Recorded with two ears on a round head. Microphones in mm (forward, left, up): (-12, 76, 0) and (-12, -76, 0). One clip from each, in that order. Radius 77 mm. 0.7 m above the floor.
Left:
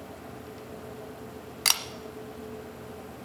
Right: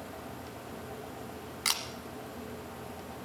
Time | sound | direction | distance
1.6 | a camera shutter | 20° left (ahead or behind) | 1.0 m